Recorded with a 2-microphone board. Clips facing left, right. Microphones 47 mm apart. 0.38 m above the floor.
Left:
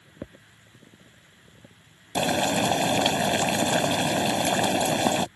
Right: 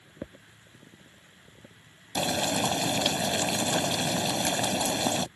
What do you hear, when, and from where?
2.1 s boiling: 30° left (ahead or behind)